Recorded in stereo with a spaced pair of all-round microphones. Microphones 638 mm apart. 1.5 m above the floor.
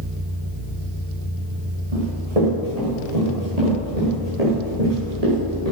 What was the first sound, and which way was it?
Running footsteps, 60° right (ahead or behind).